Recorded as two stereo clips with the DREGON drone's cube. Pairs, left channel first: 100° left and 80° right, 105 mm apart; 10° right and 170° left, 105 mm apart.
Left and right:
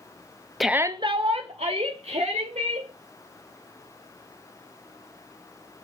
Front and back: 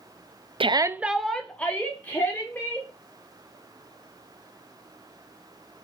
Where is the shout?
170° right, 0.5 m; by 2.9 s 80° right, 3 m.